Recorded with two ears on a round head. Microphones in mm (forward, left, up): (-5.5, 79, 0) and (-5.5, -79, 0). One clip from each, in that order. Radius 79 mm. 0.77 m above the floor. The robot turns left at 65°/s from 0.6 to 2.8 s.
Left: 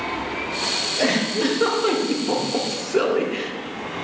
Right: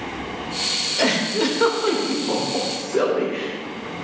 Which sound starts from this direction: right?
A giggle, at 1.0 s.